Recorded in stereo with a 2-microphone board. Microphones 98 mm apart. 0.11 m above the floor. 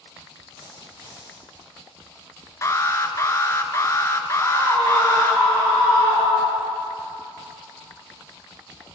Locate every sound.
0.6 s a dropped coin: 60° right (ahead or behind), 6.5 m
2.6 s an alarm: 30° left (ahead or behind), 0.9 m
4.4 s a scream: 35° right (ahead or behind), 6 m